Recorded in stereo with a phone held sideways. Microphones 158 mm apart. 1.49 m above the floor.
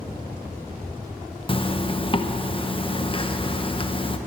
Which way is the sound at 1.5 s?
35° left (ahead or behind).